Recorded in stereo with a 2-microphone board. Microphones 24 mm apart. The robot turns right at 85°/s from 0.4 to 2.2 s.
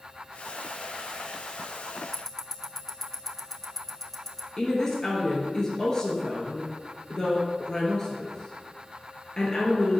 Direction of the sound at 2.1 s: 15° left (ahead or behind).